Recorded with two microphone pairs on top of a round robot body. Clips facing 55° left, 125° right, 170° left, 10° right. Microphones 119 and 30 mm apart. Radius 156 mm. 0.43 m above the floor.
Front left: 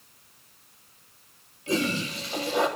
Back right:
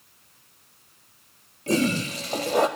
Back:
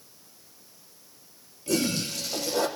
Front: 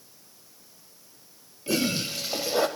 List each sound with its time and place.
1.7 s a toilet flushing: 75° right, 0.6 m